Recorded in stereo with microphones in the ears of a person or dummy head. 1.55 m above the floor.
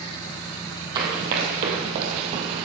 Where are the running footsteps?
25° right (ahead or behind), 1.9 m; by 2.6 s 35° right (ahead or behind), 2 m.